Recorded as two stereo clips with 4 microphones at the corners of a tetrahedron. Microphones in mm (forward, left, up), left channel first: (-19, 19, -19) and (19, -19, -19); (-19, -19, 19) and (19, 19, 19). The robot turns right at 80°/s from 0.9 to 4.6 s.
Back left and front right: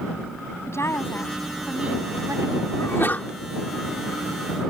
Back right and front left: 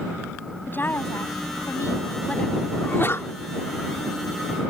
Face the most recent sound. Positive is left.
turn(degrees=-55)